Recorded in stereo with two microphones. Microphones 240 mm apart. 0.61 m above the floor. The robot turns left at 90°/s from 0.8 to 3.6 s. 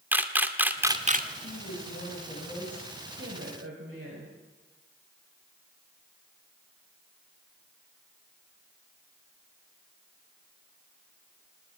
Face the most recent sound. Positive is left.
turn(degrees=-85)